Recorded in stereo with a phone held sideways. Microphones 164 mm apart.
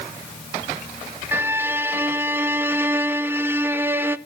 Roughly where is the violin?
Centre.